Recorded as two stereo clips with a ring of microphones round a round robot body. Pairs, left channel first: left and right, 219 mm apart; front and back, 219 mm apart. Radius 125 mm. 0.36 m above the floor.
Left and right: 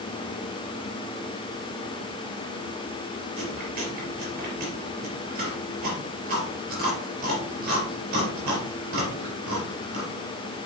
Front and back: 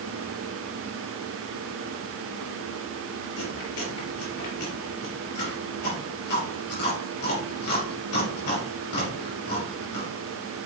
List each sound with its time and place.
3.4 s chewing: 35° right, 4 m